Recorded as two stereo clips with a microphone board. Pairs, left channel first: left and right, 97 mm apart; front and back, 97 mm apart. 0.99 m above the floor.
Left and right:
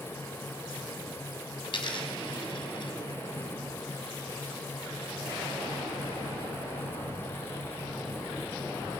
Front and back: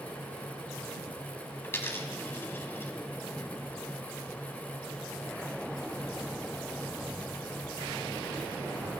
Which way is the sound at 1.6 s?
65° left.